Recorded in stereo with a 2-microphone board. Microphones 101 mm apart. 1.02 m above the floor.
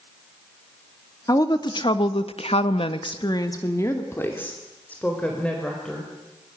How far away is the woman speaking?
About 2 m.